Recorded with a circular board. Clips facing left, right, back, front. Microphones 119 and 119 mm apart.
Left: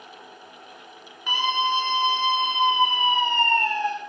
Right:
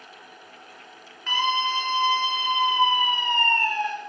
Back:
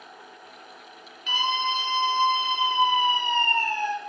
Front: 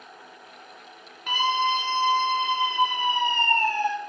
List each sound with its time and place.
1.3 s a scream: 20° left, 2.5 m; by 3.9 s 30° left, 3.5 m